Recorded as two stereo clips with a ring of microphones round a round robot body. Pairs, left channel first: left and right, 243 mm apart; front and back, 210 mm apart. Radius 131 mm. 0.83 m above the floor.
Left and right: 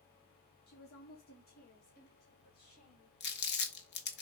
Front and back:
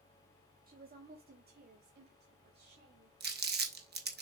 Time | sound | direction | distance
0.7 | a woman speaking | 135° left | 2 m
3.2 | crumpling | 140° left | 1.6 m